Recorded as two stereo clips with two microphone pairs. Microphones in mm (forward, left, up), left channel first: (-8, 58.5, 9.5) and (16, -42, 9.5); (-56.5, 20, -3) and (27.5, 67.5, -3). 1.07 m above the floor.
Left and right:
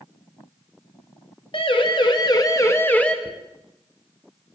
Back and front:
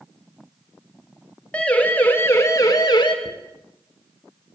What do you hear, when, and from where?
1.5 s a siren: 130° left, 3.5 m; by 3.1 s 175° right, 2 m
3.2 s a dropped coin: 60° left, 5 m